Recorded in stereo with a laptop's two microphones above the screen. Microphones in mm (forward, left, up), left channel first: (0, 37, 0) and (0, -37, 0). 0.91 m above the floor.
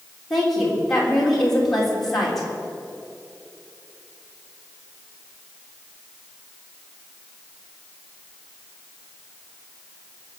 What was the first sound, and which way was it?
A woman speaking, 5° left (ahead or behind).